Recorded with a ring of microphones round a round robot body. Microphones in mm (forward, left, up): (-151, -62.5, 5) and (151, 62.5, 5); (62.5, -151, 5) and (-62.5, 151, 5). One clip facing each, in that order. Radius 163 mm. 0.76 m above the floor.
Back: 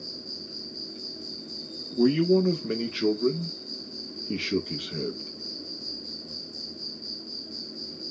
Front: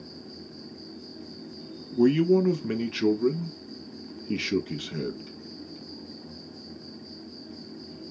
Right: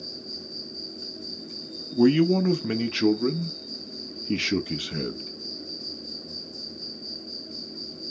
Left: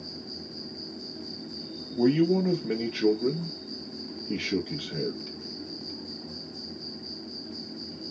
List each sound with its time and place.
0.0 s an insect: 135° right, 1.0 m
1.9 s a man speaking: 45° right, 0.6 m